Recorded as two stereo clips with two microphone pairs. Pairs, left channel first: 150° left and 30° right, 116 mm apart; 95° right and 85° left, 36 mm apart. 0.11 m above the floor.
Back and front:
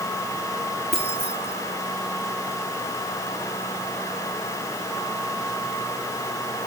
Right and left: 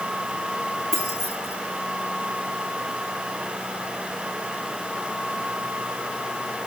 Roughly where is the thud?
No thud in this recording.